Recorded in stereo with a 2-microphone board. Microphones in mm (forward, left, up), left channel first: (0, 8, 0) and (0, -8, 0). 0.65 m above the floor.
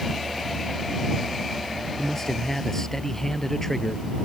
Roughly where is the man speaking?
Left.